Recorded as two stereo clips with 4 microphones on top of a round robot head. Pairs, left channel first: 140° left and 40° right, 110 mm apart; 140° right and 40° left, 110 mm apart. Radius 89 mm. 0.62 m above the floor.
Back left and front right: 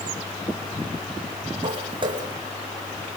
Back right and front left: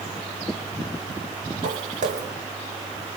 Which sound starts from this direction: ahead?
Footsteps, at 1.6 s.